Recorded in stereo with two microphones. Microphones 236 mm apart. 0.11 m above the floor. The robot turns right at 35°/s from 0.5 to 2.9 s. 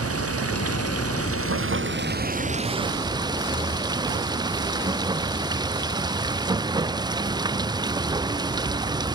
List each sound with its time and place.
0.0 s running water: 100° right; by 9.2 s 20° right